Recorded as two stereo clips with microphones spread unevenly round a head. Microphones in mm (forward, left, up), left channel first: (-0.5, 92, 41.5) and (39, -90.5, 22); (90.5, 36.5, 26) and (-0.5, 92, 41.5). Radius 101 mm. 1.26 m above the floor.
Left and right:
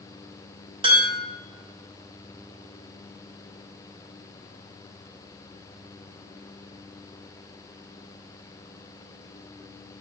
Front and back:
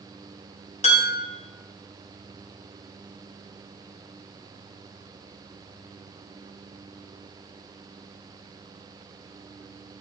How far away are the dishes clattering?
About 4.5 m.